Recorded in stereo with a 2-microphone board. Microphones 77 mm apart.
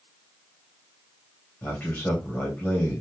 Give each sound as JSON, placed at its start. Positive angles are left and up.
{"t": 1.6, "sound": "a man speaking", "side_deg": 25, "distance_m": 2.5}